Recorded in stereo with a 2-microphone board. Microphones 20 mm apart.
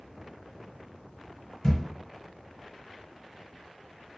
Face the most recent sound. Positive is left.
turn(degrees=35)  # may be behind; listen again after turning